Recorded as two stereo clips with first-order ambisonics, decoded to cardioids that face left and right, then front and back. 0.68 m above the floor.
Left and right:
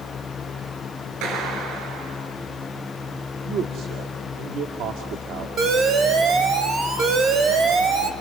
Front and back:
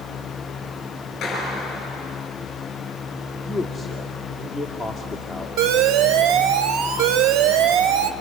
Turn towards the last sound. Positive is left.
turn(degrees=-150)